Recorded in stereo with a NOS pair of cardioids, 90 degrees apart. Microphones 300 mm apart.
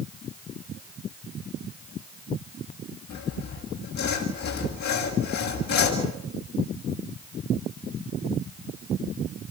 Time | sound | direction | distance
3.1 | sawing | 65° left | 7 m